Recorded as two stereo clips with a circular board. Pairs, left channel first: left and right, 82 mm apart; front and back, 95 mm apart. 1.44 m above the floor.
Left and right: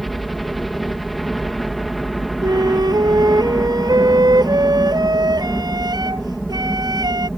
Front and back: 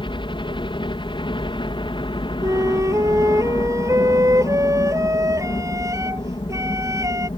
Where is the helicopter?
Straight ahead.